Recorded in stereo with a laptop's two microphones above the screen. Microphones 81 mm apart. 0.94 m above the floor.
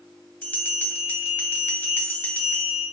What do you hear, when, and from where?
0.4 s a bell: 20° left (ahead or behind), 1.4 m